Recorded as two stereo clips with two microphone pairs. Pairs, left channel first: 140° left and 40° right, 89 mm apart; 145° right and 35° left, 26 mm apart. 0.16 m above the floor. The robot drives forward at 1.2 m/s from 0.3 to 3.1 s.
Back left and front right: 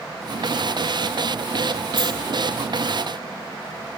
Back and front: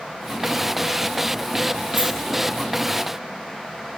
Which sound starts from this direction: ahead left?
A dropped coin, at 2.0 s.